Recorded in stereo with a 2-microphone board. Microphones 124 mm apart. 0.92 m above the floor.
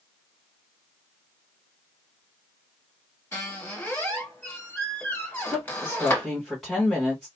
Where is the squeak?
15° left (ahead or behind), 1.7 m.